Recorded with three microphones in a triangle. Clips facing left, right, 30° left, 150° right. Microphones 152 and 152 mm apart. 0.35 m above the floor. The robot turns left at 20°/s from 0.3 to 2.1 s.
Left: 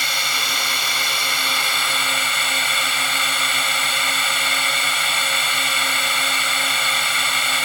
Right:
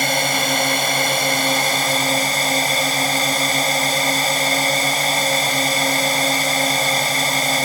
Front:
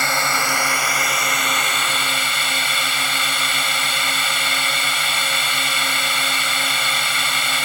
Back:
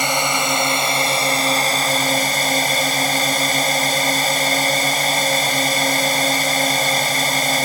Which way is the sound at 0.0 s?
85° right.